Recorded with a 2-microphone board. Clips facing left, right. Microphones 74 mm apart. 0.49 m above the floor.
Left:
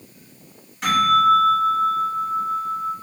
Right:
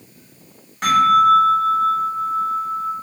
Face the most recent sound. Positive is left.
turn(degrees=-60)  # may be behind; listen again after turning